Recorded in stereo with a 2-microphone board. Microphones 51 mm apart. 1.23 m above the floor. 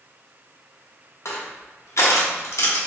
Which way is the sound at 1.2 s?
65° left (ahead or behind).